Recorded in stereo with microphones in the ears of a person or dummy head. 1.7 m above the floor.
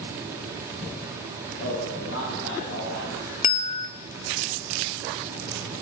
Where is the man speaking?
65° left (ahead or behind), 3.5 m.